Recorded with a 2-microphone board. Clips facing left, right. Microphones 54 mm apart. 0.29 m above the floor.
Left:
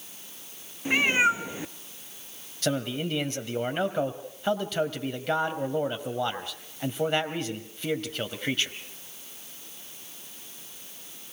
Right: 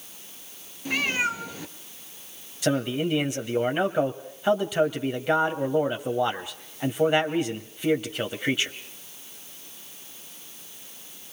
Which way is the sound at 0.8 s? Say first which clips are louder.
Left 3 dB; 20° left (ahead or behind).